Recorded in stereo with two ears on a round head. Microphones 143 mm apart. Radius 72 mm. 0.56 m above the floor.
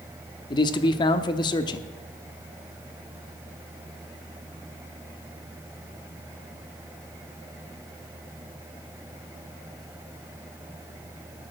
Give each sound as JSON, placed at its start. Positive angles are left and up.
{"t": 0.5, "sound": "a man speaking", "side_deg": 30, "distance_m": 0.8}